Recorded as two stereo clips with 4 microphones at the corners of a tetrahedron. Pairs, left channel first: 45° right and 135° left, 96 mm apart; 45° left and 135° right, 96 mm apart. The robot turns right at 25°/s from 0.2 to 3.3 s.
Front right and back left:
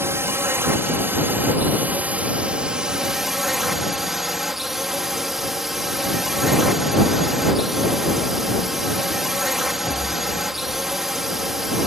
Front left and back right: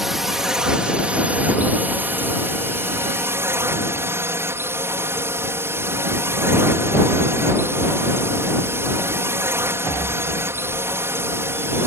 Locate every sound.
0.0 s a drone: 140° left; by 11.9 s 140° right